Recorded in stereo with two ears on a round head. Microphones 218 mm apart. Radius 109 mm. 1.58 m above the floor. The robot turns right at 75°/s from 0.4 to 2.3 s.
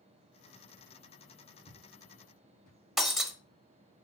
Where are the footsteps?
5° left (ahead or behind), 3.5 m; by 2.8 s 35° left (ahead or behind), 3.5 m.